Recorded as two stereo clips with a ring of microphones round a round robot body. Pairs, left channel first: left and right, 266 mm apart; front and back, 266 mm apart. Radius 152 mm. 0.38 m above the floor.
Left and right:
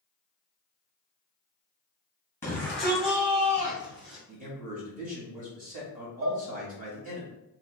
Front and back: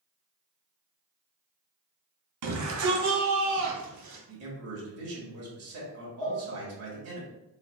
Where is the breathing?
I don't hear breathing.